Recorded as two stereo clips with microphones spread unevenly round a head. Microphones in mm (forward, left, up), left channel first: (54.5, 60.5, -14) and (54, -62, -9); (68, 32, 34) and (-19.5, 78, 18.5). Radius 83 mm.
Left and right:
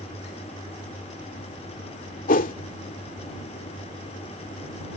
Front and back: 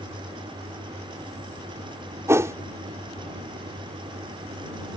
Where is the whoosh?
90° left.